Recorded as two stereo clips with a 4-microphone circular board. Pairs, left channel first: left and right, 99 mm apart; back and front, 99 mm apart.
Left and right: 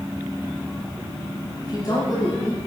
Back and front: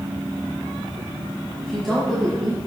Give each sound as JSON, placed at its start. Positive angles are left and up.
{"t": 1.6, "sound": "a woman speaking", "azimuth_deg": 95, "distance_m": 1.6}